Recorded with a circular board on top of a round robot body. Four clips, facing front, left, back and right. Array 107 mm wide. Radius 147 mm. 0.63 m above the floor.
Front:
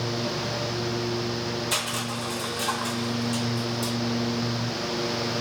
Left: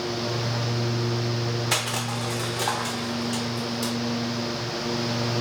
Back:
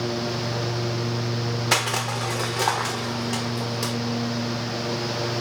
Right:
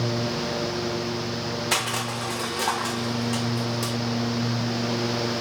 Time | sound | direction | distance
1.7 | crushing | straight behind | 0.6 m